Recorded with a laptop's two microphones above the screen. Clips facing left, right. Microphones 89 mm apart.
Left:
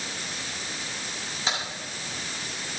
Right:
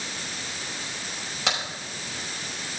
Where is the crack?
75° right (ahead or behind), 5.5 m.